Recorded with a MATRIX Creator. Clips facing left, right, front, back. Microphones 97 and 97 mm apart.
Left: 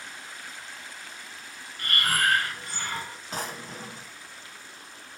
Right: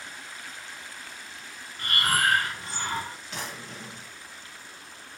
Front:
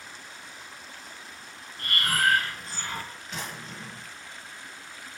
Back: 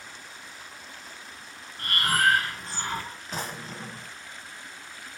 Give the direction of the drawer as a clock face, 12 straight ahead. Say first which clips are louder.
Left 6 dB, back 4 dB; 8 o'clock.